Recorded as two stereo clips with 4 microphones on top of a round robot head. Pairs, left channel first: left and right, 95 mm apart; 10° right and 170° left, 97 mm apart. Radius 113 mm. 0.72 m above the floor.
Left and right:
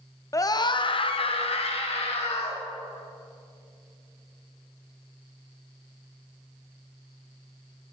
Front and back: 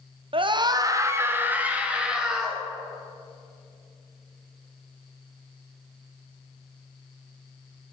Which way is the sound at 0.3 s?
145° left.